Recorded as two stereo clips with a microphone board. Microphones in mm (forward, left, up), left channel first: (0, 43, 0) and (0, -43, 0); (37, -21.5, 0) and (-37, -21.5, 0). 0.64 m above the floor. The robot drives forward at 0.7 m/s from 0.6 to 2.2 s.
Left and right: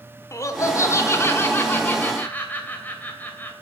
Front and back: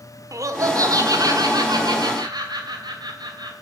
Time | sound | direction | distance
0.3 | laughter | 140° left | 1.4 m